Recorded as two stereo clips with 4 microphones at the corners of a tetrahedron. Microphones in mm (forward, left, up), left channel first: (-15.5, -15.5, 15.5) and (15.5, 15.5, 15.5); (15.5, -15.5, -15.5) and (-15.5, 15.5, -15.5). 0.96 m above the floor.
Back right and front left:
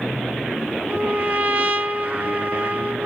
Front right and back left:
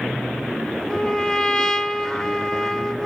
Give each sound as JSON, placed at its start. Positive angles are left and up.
{"t": 0.9, "sound": "a trumpet", "azimuth_deg": 25, "distance_m": 0.7}